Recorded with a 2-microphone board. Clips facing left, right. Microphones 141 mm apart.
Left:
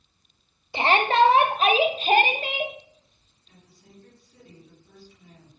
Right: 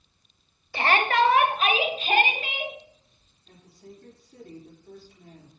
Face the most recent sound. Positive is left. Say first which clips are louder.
# right 7 dB
turn(degrees=-60)  # may be behind; listen again after turning